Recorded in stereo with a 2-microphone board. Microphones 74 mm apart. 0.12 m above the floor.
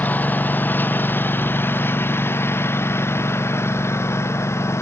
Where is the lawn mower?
25° left (ahead or behind); by 4.8 s 35° left (ahead or behind).